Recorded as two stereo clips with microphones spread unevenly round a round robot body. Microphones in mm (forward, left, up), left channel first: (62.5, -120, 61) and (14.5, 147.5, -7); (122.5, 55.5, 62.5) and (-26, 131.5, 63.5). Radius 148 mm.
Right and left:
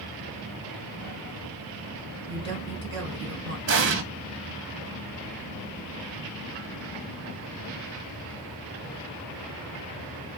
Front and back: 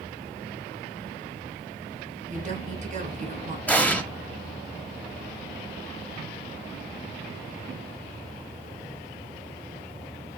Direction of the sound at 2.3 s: 125° left.